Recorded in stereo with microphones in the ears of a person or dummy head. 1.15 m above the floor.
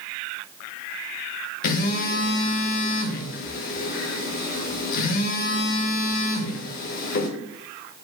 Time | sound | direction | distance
1.6 | a phone buzzing | 45° left (ahead or behind) | 0.7 m